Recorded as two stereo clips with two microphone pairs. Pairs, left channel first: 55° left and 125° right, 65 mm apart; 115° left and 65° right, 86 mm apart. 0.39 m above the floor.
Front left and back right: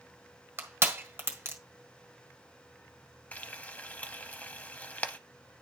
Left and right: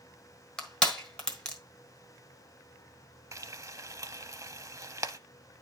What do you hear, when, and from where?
0.6 s crushing: 170° right, 1.5 m
3.3 s frying: 10° right, 0.6 m